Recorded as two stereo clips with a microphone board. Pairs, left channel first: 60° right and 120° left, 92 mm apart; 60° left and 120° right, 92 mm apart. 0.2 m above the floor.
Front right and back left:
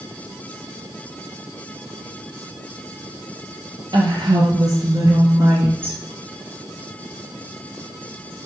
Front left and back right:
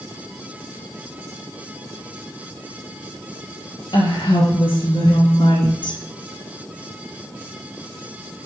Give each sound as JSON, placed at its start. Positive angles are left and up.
{"t": 3.9, "sound": "a woman speaking", "azimuth_deg": 85, "distance_m": 4.0}